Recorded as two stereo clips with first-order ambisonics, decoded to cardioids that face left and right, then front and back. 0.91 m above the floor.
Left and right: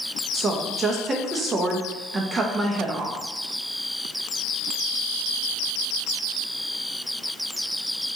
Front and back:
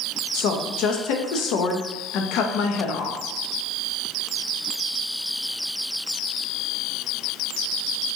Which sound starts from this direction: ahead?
A woman speaking, at 0.3 s.